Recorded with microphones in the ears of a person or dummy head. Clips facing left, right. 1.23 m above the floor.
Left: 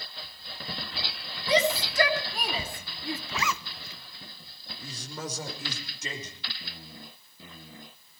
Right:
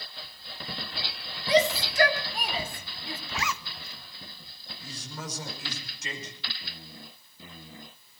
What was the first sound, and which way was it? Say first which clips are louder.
A shout: right 2 dB; 75° left (ahead or behind).